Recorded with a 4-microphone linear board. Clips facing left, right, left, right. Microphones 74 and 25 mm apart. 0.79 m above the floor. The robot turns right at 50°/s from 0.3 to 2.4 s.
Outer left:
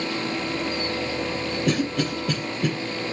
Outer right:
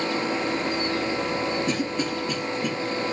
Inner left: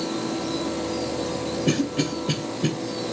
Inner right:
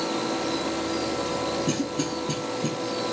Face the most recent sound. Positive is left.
turn(degrees=70)  # may be behind; listen again after turning